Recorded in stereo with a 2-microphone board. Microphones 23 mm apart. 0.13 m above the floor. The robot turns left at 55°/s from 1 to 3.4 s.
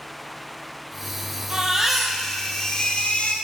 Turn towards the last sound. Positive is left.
turn(degrees=110)